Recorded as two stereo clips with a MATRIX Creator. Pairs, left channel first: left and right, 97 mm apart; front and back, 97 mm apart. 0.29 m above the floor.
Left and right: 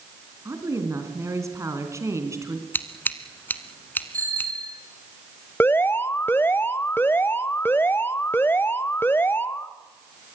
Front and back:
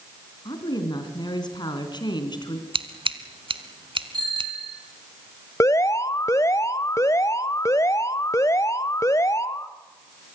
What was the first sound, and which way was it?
A woman speaking, 35° right.